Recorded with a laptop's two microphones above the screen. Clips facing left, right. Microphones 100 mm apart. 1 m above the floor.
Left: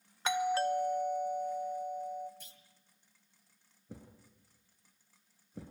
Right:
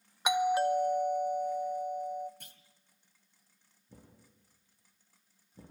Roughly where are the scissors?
I don't hear scissors.